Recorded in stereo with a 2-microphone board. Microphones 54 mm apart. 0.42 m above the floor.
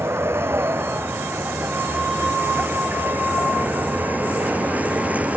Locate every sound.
0.0 s a vehicle: 45° right (ahead or behind); by 5.4 s 25° right (ahead or behind)